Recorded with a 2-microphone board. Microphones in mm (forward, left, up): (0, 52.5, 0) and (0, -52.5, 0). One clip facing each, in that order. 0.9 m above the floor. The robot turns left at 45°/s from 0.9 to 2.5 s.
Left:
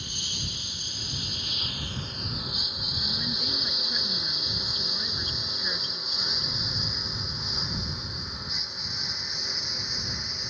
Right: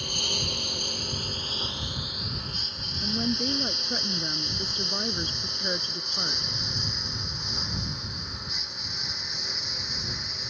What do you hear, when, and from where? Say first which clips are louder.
0.0 s a lawn mower: right 6 dB; 60° right (ahead or behind); by 10.5 s centre (ahead or behind)
3.0 s a woman speaking: right 9 dB; 45° right (ahead or behind)